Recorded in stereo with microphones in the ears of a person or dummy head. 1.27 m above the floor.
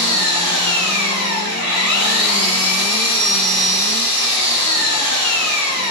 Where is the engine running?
30° right (ahead or behind), 1.4 m.